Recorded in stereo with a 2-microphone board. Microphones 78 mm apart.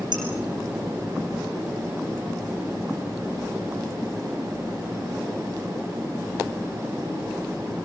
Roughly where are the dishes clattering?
Right.